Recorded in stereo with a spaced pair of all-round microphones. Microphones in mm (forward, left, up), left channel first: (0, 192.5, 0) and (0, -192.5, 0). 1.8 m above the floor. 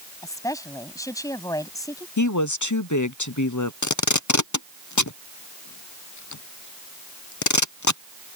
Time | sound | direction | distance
0.2 | a woman speaking | 10° left (ahead or behind) | ?
2.2 | a woman speaking | 50° left (ahead or behind) | ?
3.8 | tape being pulled | 50° left (ahead or behind) | ?